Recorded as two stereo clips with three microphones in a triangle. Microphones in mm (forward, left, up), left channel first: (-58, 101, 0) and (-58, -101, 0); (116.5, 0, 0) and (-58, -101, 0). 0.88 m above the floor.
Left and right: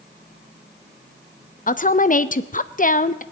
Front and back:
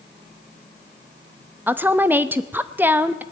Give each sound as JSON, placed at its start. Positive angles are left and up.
{"t": 1.7, "sound": "a woman speaking", "azimuth_deg": 130, "distance_m": 0.6}